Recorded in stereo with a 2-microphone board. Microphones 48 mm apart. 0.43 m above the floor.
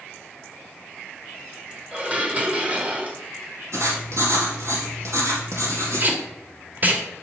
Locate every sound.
1.9 s dishes clattering: 30° right (ahead or behind), 1.7 m
3.7 s writing: 75° right (ahead or behind), 3 m
6.0 s tape being pulled: 40° right (ahead or behind), 1.7 m